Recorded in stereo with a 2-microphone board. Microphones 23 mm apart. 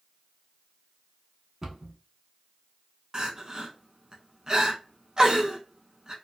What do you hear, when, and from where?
1.6 s a cupboard door: 25° right (ahead or behind), 0.7 m
3.1 s crying: 35° right (ahead or behind), 0.6 m